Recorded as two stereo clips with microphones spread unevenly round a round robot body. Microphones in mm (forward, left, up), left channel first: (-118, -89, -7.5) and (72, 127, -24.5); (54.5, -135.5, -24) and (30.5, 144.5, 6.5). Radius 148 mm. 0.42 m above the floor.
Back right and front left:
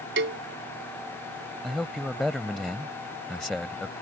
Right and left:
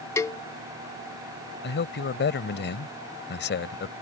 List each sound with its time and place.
0.2 s a cowbell: 5° right
1.6 s a man speaking: 40° right